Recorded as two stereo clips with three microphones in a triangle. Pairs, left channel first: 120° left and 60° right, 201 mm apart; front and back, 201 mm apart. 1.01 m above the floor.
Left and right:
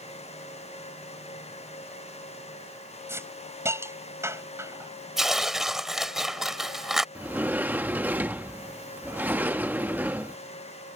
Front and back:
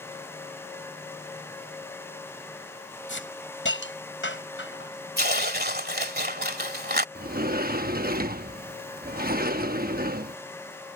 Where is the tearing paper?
150° right.